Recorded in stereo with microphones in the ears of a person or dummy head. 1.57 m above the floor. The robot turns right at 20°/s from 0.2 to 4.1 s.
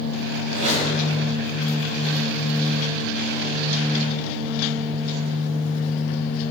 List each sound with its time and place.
0.5 s a squeak: 35° right (ahead or behind), 1.2 m; by 0.9 s 30° right (ahead or behind), 1.2 m